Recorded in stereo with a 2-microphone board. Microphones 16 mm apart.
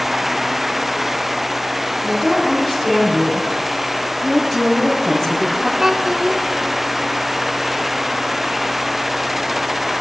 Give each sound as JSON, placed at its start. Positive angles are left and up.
{"t": 2.0, "sound": "a woman speaking", "side_deg": 30, "distance_m": 6.0}
{"t": 4.2, "sound": "a woman speaking", "side_deg": 30, "distance_m": 2.5}
{"t": 5.8, "sound": "a child speaking", "side_deg": -30, "distance_m": 0.9}